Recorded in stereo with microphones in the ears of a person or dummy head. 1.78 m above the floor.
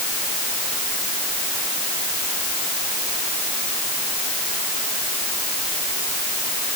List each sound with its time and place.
Only background noise.